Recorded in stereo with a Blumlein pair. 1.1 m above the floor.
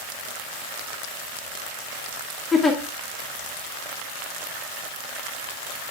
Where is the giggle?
15° left, 1.8 m.